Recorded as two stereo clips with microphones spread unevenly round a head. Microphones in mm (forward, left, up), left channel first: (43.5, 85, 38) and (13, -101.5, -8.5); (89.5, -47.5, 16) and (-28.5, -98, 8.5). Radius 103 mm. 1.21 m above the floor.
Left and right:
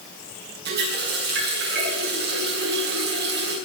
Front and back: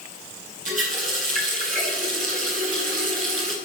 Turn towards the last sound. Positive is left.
turn(degrees=-145)